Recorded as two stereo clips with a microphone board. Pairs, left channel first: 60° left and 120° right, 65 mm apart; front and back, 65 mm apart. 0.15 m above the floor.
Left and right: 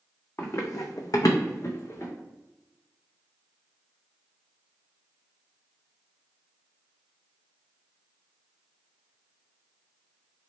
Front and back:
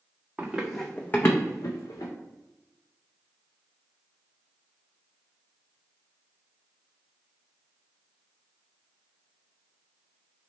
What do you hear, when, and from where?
0.4 s running footsteps: 110° left, 0.7 m; by 2.1 s 10° left, 0.9 m